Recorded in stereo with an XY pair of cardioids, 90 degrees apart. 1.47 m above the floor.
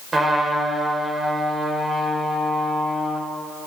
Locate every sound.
0.1 s a trumpet: 35° right, 6.5 m